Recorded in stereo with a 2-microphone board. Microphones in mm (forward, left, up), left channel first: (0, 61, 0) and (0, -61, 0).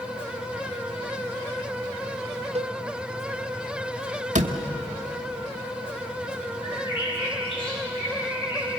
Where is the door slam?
90° right, 1.3 m.